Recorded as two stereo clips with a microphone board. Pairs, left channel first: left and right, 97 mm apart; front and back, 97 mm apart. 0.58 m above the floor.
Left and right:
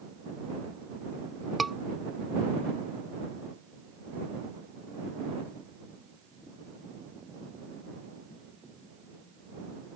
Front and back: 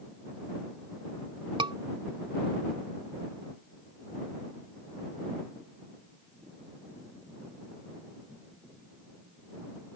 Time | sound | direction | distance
1.6 | a scream | straight behind | ?